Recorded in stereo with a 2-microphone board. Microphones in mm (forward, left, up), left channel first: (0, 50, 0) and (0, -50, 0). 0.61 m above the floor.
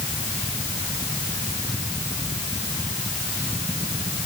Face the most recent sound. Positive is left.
No sound to turn to.